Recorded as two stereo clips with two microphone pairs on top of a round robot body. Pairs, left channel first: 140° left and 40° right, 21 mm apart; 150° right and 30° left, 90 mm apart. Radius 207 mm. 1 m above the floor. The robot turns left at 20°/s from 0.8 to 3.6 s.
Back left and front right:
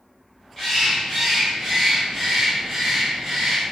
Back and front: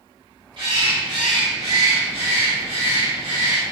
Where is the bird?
70° left, 0.7 m; by 3.6 s 10° left, 0.7 m.